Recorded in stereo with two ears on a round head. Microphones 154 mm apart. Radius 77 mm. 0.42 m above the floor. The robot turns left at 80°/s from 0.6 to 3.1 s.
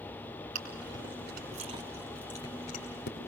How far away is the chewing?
About 5 m.